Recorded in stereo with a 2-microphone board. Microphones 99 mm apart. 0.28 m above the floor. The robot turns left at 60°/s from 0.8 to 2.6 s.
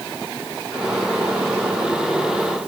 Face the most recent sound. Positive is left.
No sound to turn to.